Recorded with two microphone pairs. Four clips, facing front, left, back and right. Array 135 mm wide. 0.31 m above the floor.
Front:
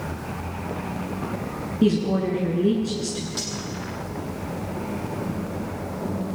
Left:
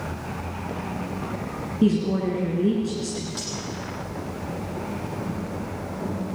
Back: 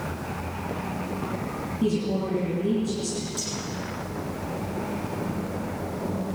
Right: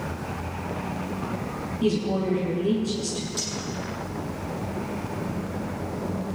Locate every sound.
1.8 s a woman speaking: 25° left, 5 m
3.4 s cutlery clinking: 25° left, 7 m